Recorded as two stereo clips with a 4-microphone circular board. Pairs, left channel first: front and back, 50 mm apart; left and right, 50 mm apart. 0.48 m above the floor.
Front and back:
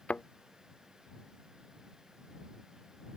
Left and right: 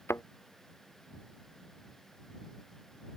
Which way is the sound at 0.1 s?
65° left.